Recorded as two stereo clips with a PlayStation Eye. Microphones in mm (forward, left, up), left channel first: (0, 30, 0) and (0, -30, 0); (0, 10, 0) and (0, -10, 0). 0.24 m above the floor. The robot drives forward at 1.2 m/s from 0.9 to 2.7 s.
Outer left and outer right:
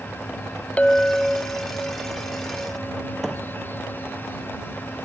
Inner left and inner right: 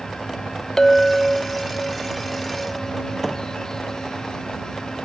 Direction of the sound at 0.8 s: 20° left (ahead or behind).